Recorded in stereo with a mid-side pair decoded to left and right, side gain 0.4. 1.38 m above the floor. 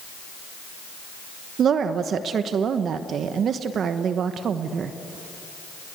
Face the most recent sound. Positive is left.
turn(degrees=-65)